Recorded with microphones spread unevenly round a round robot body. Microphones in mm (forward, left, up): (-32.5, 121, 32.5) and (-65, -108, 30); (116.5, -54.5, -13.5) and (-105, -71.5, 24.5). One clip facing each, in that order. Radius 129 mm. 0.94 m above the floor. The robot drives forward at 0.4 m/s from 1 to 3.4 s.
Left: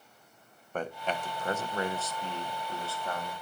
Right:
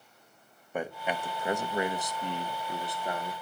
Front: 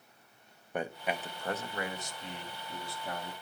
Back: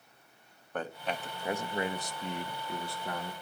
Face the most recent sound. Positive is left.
turn(degrees=-170)